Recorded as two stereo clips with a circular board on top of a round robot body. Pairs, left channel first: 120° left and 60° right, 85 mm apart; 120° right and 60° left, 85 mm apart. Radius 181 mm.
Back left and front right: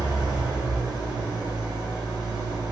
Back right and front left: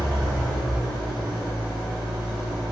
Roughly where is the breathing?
No breathing in this recording.